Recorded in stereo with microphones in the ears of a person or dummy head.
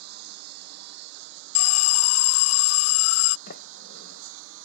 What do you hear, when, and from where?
0.0 s a lawn mower: 65° right (ahead or behind); by 4.7 s 85° right
1.6 s an alarm: 80° left
3.5 s a sliding door: 55° left (ahead or behind)